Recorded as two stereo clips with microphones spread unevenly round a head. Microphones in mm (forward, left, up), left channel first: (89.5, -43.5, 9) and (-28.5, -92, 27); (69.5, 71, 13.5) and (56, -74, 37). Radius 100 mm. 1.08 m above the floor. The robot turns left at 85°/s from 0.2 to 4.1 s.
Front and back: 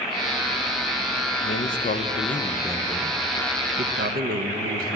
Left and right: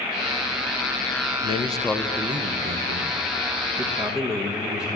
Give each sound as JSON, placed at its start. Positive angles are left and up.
{"t": 1.4, "sound": "a man speaking", "azimuth_deg": 45, "distance_m": 0.7}